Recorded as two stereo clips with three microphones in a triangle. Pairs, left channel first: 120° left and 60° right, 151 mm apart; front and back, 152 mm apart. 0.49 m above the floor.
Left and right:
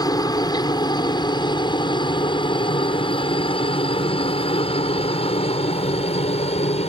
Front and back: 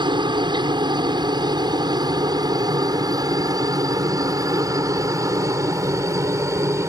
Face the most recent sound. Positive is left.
turn(degrees=120)